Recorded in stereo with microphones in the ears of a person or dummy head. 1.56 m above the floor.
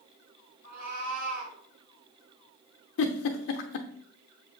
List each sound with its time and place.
0.6 s a cat meowing: 50° right (ahead or behind), 2.5 m
3.0 s a giggle: 65° left (ahead or behind), 0.6 m